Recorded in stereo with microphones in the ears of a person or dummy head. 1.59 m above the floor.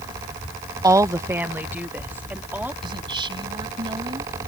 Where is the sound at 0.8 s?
20° right (ahead or behind); by 2.7 s 10° right (ahead or behind).